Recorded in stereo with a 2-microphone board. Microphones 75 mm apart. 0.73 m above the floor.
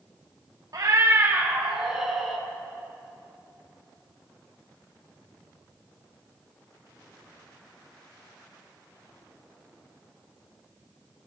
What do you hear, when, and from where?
0.7 s a cat meowing: 55° right (ahead or behind), 1.3 m; by 2.4 s centre (ahead or behind), 2.5 m